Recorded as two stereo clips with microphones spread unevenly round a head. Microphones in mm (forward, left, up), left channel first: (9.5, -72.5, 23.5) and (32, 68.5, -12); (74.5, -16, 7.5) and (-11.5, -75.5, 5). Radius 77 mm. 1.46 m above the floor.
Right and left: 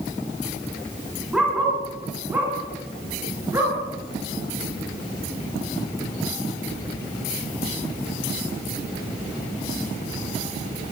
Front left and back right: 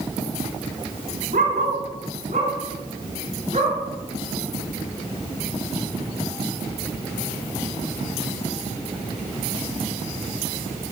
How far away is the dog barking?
About 5 m.